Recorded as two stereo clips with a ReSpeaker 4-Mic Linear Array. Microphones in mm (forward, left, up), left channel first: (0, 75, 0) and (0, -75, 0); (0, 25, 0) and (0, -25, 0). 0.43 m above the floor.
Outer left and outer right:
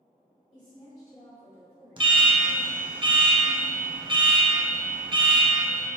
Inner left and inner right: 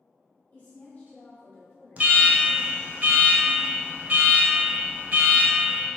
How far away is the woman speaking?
About 1.5 m.